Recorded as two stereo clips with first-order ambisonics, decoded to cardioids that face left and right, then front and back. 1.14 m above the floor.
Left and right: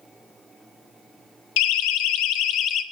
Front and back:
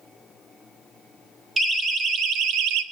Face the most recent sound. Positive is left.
turn(degrees=145)